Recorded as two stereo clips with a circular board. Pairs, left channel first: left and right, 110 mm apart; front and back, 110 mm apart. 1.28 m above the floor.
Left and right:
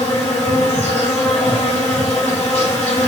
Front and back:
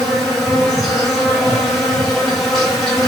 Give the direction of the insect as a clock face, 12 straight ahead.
9 o'clock.